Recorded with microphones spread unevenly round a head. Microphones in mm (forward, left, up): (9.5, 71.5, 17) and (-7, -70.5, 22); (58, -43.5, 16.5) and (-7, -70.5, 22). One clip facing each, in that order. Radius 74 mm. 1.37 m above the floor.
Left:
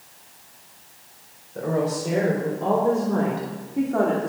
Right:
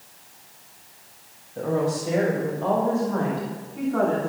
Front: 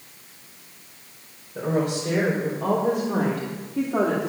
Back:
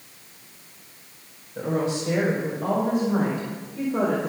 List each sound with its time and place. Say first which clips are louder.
1.6 s a woman speaking: even, front 1 dB; 70° left, 5 m; by 4.3 s 40° left, 3 m